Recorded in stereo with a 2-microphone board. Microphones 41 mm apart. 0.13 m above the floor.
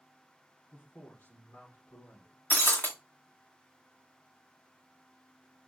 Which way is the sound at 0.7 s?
50° left (ahead or behind).